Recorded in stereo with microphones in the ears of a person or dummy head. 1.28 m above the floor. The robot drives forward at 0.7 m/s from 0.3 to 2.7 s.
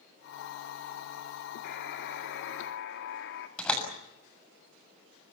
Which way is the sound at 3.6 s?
5° left (ahead or behind).